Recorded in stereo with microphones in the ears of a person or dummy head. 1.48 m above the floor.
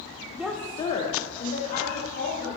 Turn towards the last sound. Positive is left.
turn(degrees=60)  # may be behind; listen again after turning